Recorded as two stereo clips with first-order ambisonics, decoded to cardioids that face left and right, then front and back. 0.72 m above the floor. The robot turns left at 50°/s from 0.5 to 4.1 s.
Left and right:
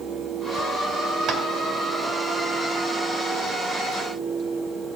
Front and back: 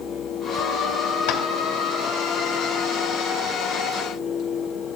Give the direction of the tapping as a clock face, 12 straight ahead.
1 o'clock.